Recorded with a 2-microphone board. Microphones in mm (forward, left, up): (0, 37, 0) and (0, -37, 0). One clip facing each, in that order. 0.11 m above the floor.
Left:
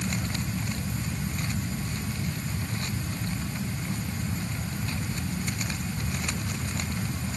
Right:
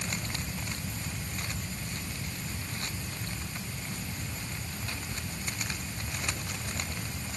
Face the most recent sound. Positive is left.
No sound to turn to.